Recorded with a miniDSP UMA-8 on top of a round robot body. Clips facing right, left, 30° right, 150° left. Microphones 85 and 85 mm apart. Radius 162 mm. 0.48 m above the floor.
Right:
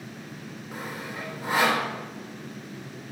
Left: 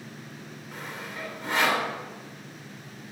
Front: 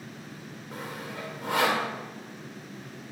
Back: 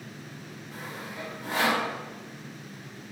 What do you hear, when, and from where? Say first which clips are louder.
0.7 s sawing: right 2 dB, front 2 dB; 10° right, 2.5 m